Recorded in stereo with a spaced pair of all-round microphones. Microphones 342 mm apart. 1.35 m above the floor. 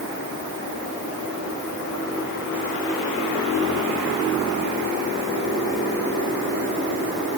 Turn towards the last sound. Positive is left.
No sound to turn to.